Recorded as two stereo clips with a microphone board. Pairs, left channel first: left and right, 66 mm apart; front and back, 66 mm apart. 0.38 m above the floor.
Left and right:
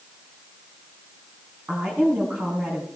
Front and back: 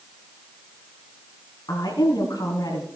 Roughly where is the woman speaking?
Ahead.